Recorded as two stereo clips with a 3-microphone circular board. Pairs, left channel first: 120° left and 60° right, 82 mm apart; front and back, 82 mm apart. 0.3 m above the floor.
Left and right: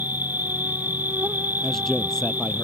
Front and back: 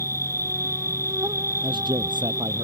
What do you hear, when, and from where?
0.0 s an insect: 125° right
1.6 s a man speaking: 155° right